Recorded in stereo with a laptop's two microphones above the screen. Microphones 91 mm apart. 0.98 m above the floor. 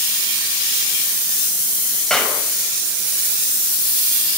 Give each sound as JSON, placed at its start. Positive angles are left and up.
{"t": 2.1, "sound": "a clap", "side_deg": 10, "distance_m": 5.5}